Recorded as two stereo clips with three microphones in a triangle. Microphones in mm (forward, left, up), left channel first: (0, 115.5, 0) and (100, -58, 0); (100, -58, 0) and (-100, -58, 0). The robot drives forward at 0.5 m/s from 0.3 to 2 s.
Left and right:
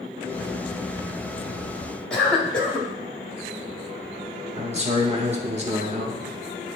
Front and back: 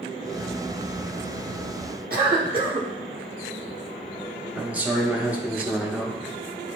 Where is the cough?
155° right, 1.7 m.